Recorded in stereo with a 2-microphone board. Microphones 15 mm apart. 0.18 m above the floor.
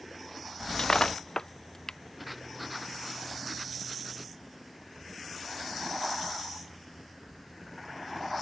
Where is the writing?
Centre (ahead or behind).